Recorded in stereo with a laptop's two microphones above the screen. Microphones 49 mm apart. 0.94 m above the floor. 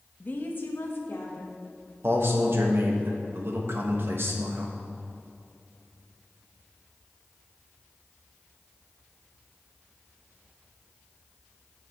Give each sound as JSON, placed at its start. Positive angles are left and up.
{"t": 0.2, "sound": "a woman speaking", "side_deg": 35, "distance_m": 0.7}
{"t": 2.0, "sound": "a man speaking", "side_deg": -55, "distance_m": 1.2}